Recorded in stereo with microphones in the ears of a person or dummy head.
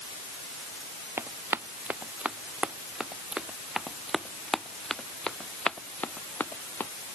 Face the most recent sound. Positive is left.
turn(degrees=10)  # may be behind; listen again after turning